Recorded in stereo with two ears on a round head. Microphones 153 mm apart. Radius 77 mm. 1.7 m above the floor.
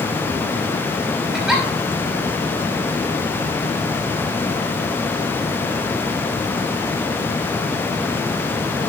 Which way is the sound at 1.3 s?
Centre (ahead or behind).